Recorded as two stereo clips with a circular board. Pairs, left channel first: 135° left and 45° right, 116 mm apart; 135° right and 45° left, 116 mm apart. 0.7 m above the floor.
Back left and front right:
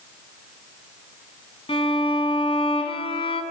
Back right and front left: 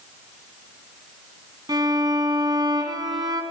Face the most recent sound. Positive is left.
turn(degrees=100)